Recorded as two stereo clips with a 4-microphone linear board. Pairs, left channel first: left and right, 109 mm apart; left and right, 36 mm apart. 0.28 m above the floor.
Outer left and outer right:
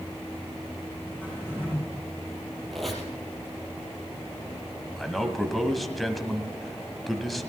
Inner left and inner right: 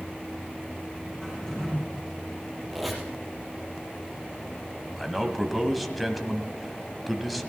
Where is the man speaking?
Centre (ahead or behind), 1.5 m.